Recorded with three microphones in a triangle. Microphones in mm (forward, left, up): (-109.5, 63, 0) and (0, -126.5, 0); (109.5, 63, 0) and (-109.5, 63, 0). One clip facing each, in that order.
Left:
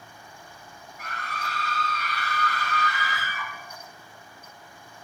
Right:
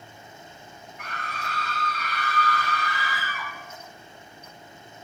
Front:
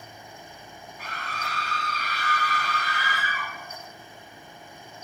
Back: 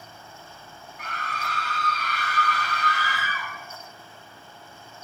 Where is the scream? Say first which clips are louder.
Even, back 2 dB; 170° left, 3.5 m; by 3.5 s 170° right, 4 m.